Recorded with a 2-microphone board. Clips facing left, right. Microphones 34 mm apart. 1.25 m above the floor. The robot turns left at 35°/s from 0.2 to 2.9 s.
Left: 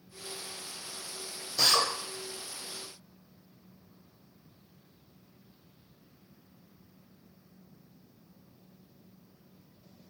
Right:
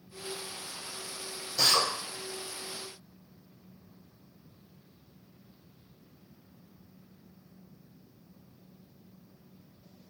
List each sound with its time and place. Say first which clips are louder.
1.6 s a drill: even; 5° left (ahead or behind), 0.9 m; by 1.9 s 15° left (ahead or behind), 0.9 m